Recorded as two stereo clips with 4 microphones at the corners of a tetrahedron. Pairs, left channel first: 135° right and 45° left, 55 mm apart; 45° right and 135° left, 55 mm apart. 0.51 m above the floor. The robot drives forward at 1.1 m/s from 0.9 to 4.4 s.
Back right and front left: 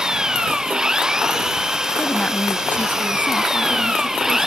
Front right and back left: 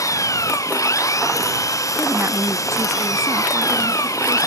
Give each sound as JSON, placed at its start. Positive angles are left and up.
{"t": 0.0, "sound": "an engine running", "azimuth_deg": -35}
{"t": 2.0, "sound": "a woman speaking", "azimuth_deg": 160}